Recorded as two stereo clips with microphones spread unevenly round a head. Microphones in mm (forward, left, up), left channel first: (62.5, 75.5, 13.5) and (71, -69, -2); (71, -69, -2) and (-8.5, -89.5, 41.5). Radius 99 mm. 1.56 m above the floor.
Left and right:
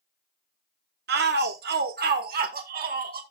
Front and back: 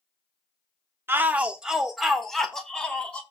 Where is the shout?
115° right, 0.7 m; by 3.2 s 70° right, 1.8 m.